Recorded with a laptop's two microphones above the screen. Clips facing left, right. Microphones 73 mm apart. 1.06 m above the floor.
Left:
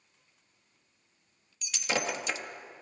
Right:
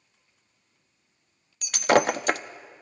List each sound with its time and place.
1.6 s breaking glass: 60° right (ahead or behind), 0.7 m